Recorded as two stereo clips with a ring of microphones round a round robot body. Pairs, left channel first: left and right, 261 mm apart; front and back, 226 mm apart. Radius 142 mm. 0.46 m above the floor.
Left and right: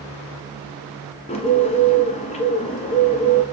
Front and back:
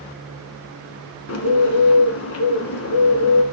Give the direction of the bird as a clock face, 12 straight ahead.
11 o'clock.